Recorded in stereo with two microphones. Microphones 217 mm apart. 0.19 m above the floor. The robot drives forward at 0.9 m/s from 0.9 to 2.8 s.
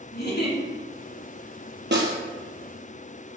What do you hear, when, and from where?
0.1 s a giggle: 50° left (ahead or behind), 2.5 m
1.9 s a snare drum: 55° right (ahead or behind), 1.2 m; by 2.1 s 50° right (ahead or behind), 1.3 m